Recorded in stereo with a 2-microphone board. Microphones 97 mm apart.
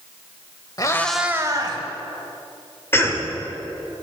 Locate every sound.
0.8 s a cat meowing: 40° left (ahead or behind), 0.9 m; by 1.8 s 45° right (ahead or behind), 1.4 m
2.9 s a cough: 25° left (ahead or behind), 1.4 m